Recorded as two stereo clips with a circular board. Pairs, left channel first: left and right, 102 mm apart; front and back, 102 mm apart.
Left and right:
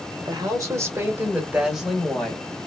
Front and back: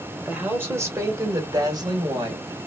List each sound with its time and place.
0.2 s a woman speaking: 115° right, 1.1 m; by 2.5 s 170° left, 1.3 m